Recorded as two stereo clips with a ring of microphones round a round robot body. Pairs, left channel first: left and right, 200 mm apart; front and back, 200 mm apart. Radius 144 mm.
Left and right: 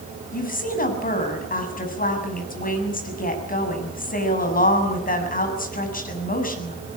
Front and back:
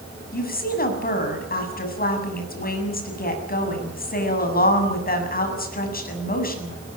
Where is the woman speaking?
45° left, 7.5 m.